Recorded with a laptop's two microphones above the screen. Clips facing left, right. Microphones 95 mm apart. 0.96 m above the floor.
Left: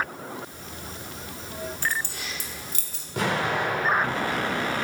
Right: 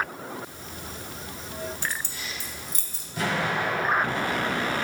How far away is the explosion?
About 3.5 m.